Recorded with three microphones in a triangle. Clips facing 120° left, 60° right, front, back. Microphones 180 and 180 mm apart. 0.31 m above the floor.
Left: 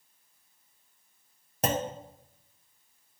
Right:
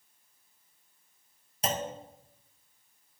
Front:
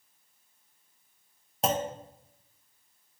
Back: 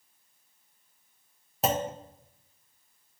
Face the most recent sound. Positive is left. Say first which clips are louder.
# left 4 dB, back 1 dB
turn(degrees=90)